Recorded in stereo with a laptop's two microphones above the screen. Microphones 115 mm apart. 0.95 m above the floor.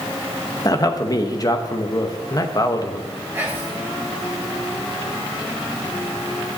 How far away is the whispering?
About 1.8 m.